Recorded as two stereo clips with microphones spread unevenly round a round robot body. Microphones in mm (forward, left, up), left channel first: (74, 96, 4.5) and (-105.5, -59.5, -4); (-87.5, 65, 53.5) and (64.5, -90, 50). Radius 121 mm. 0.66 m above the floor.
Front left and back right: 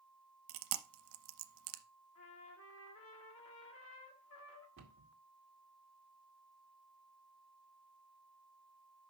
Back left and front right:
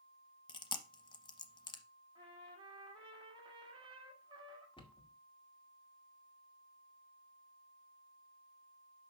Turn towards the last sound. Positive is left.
turn(degrees=-160)